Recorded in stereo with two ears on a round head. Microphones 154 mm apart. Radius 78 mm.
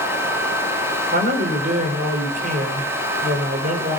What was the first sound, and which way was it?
A man speaking, 50° right (ahead or behind).